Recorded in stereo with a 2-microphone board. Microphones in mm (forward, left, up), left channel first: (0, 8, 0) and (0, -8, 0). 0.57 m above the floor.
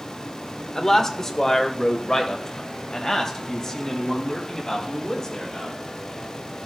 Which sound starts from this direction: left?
A man speaking, at 0.8 s.